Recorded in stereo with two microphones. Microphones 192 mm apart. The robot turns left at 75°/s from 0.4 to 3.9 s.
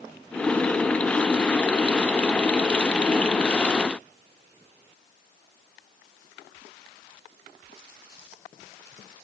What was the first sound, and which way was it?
Only background noise.